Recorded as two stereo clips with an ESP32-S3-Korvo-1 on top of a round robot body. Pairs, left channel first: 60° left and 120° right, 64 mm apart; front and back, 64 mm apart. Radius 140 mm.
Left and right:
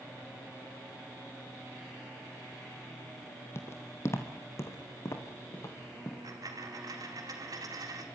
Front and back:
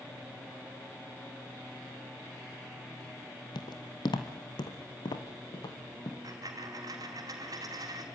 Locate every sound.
3.5 s footsteps: 5° left, 1.2 m; by 6.1 s 10° left, 3 m
6.2 s a dropped coin: 150° right, 2.5 m